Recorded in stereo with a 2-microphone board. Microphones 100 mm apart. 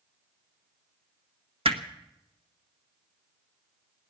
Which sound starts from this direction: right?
Hammering, at 1.6 s.